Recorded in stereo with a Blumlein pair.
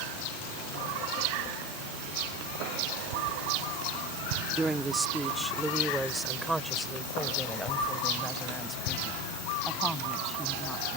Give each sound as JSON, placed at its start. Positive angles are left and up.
{"t": 4.5, "sound": "a woman speaking", "azimuth_deg": -10}